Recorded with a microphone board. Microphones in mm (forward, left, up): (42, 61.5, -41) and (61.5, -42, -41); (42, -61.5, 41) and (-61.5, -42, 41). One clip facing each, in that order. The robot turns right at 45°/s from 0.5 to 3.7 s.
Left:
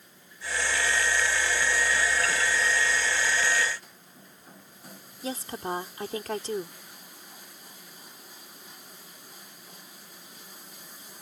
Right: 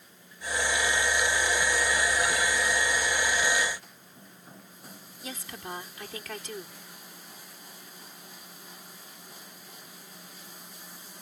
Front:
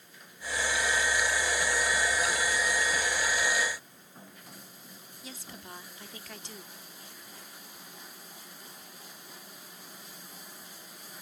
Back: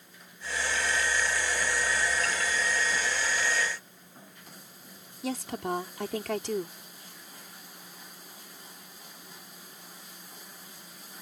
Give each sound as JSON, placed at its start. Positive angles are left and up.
{"t": 5.2, "sound": "a woman speaking", "azimuth_deg": 155}